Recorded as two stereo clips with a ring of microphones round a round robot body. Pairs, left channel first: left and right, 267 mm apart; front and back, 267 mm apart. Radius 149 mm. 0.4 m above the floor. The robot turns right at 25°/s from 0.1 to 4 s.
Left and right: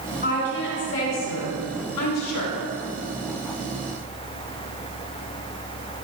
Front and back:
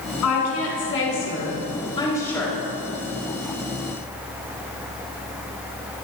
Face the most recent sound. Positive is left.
turn(degrees=125)